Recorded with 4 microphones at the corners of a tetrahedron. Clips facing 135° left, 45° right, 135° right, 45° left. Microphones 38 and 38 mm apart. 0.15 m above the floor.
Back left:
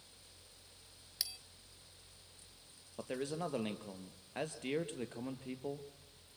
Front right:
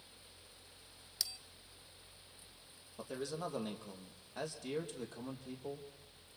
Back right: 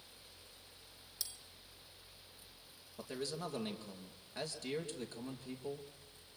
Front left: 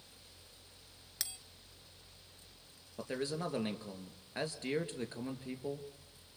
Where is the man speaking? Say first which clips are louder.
Back left 2 dB, front left 4 dB; 100° left, 3 m.